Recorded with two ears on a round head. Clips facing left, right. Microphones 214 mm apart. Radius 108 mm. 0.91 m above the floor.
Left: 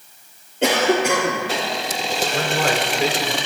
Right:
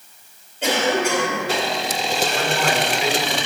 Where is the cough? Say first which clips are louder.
Left 3 dB; 55° left (ahead or behind), 2.5 m.